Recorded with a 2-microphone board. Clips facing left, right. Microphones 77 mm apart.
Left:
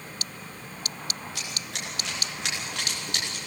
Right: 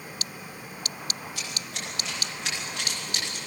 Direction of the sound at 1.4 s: 80° left.